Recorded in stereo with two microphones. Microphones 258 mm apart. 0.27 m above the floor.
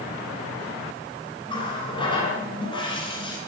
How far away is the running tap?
About 2 m.